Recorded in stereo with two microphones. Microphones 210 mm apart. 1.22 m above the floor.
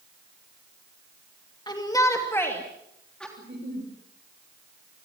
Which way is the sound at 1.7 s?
20° left (ahead or behind).